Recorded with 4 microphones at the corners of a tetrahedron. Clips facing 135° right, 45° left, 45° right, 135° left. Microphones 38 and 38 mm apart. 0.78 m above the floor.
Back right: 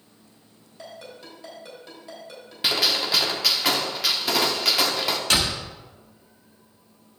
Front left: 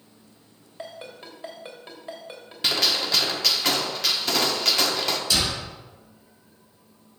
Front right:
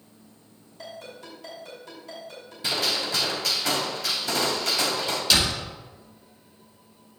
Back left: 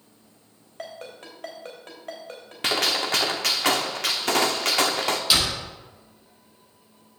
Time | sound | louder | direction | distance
0.8 | a ringtone | front left 2 dB, back left 2 dB | 100° left | 3 m
2.6 | a gunshot | back right 1 dB, back left 3 dB | 145° left | 1.0 m
5.3 | a door slam | back right 3 dB, front right 2 dB | 145° right | 2 m